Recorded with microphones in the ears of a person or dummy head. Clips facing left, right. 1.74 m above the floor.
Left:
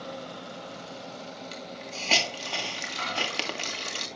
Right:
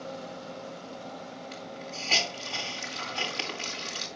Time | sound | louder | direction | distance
1.5 | a hiss | even | 60° left (ahead or behind) | 1.9 m